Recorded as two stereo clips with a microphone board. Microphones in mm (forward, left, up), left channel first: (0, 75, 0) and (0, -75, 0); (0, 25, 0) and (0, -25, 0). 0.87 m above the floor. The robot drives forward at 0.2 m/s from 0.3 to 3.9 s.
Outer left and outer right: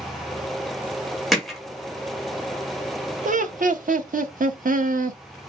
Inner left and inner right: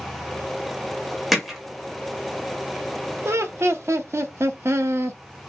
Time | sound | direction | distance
1.3 | hammering | centre (ahead or behind) | 1.0 m
3.2 | laughter | 60° right (ahead or behind) | 0.6 m